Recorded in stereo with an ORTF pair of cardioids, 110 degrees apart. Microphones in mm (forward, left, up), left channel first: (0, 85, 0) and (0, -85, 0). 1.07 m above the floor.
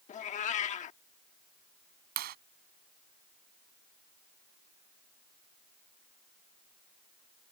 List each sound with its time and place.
0.1 s a cat meowing: 50° left
2.2 s a clap: 70° right